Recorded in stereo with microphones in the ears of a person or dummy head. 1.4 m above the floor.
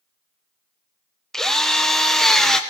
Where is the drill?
Centre (ahead or behind), 1.1 m.